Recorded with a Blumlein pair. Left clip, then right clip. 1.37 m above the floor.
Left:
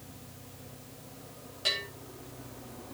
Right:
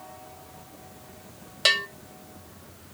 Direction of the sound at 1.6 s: 55° right.